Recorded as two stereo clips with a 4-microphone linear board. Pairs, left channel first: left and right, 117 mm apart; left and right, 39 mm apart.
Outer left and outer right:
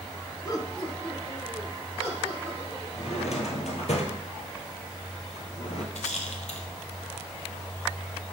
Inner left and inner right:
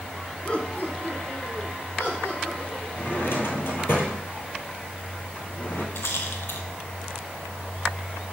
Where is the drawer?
75° left (ahead or behind), 1.1 m.